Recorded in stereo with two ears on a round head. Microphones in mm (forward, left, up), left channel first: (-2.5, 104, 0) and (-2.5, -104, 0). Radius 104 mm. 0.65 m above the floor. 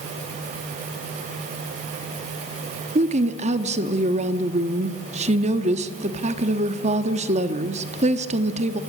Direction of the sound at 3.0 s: 30° right (ahead or behind).